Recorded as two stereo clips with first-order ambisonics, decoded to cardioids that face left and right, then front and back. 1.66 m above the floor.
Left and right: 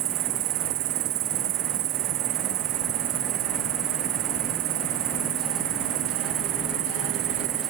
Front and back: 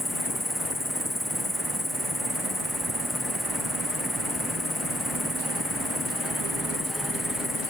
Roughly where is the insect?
Right.